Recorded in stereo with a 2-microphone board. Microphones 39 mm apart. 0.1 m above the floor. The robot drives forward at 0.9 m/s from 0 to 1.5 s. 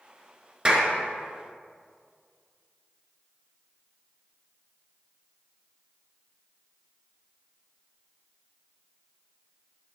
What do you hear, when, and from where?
0.7 s a clap: 20° right (ahead or behind), 1.3 m; by 0.9 s 25° right (ahead or behind), 1.3 m